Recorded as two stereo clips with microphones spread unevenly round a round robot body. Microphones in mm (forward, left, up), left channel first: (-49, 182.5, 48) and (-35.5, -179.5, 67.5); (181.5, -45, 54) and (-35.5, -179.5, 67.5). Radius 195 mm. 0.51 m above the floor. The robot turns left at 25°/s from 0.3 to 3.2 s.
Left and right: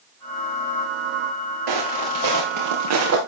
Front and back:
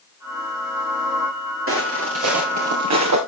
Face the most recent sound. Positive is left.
turn(degrees=-140)